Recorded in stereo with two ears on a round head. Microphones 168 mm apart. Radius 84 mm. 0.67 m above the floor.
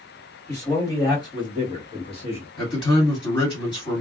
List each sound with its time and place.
0.5 s a man speaking: 15° left (ahead or behind), 1.5 m; by 2.5 s 30° left (ahead or behind), 1.1 m
2.6 s a man speaking: 25° left (ahead or behind), 1.9 m